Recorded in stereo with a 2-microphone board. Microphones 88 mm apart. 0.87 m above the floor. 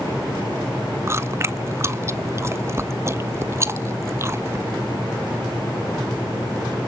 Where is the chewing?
30° right (ahead or behind), 0.7 m.